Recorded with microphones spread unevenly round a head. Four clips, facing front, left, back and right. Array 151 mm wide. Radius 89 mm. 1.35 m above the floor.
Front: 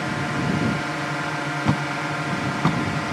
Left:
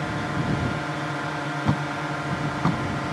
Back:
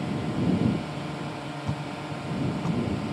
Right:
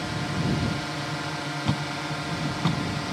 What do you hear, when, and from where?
0.0 s a drone: 15° left
1.6 s a thud: 15° left